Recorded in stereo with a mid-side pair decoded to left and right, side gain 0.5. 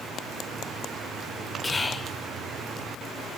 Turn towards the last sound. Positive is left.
turn(degrees=25)